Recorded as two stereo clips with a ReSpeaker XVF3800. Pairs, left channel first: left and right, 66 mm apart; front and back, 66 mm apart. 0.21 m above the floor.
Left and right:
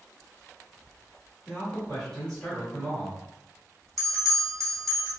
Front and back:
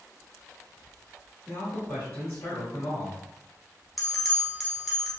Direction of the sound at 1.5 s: 25° left.